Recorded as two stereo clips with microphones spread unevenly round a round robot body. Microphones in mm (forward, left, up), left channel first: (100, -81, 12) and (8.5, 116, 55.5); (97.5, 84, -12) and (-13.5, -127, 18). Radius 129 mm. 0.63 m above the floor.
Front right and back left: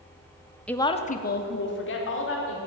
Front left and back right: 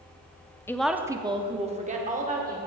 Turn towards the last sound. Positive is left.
turn(degrees=-60)